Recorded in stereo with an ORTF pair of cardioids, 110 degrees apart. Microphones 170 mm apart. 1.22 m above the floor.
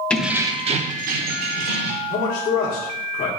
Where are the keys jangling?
5° left, 0.5 m; by 2.0 s 75° right, 1.2 m.